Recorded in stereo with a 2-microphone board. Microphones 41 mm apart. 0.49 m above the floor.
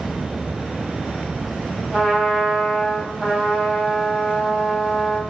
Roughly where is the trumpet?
Centre.